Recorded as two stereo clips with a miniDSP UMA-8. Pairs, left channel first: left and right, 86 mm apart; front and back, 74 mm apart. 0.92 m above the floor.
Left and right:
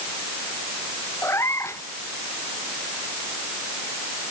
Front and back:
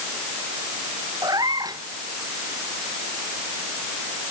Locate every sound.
1.2 s a cat meowing: 150° left